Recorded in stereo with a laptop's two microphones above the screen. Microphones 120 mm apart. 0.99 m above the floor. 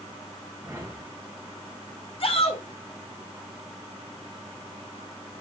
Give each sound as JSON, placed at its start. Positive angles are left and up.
{"t": 0.6, "sound": "a whoosh", "side_deg": -25, "distance_m": 3.0}
{"t": 2.2, "sound": "a shout", "side_deg": 55, "distance_m": 3.5}